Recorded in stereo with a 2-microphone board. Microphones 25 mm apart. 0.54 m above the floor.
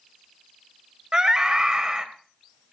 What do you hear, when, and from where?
1.1 s a scream: 25° right (ahead or behind), 2.5 m